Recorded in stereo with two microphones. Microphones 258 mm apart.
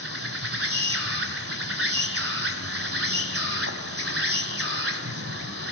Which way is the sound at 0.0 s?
60° right (ahead or behind).